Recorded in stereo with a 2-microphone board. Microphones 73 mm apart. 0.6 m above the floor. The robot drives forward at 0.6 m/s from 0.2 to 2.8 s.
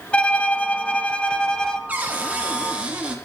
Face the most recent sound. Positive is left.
turn(degrees=-20)  # may be behind; listen again after turning